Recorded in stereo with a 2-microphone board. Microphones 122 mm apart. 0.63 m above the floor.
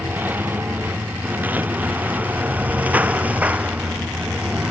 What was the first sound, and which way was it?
A lawn mower, 15° right (ahead or behind).